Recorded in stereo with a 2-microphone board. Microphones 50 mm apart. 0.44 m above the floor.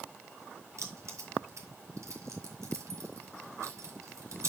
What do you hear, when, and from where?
0.8 s keys jangling: 75° right (ahead or behind), 2 m